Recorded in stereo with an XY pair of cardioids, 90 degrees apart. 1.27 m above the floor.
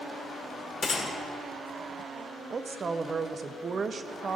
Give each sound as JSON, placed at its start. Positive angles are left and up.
{"t": 0.8, "sound": "a gunshot", "azimuth_deg": 50, "distance_m": 1.9}
{"t": 2.5, "sound": "a woman speaking", "azimuth_deg": -45, "distance_m": 0.6}